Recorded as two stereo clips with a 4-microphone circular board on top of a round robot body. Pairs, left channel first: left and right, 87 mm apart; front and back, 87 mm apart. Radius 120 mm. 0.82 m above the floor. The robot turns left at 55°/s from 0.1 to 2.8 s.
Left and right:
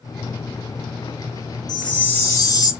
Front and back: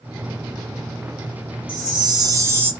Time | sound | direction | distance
1.7 | a chime | 170° left | 1.7 m